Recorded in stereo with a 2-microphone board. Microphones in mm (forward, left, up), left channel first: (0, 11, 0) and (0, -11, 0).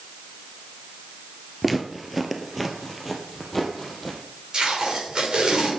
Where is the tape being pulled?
40° right (ahead or behind), 6 m.